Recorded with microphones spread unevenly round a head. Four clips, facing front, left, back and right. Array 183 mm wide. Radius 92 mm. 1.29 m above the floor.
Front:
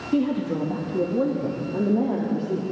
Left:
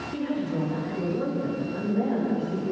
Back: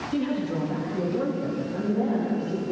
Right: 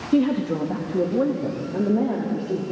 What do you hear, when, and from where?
0.1 s a woman speaking: 70° right, 2.5 m; by 2.6 s 50° right, 4 m